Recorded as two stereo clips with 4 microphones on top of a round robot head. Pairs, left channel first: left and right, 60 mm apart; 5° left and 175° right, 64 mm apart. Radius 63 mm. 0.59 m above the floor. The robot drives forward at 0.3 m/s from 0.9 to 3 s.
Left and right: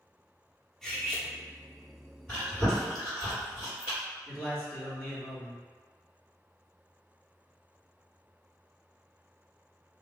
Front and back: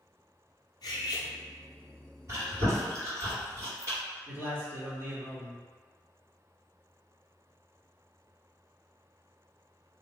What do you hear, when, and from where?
0.8 s cutlery clinking: 5° left, 0.8 m; by 1.3 s 10° left, 0.7 m
2.3 s chewing: 165° left, 2.0 m; by 4.0 s 170° left, 2 m
4.3 s a man speaking: 155° left, 1.3 m